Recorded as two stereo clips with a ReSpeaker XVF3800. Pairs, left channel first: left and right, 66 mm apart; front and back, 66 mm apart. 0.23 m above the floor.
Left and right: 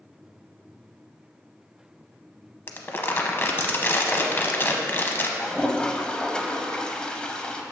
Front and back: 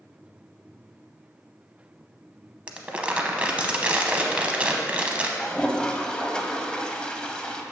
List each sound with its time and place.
2.7 s crumpling: 120° left, 0.7 m
5.4 s a toilet flushing: 45° left, 0.6 m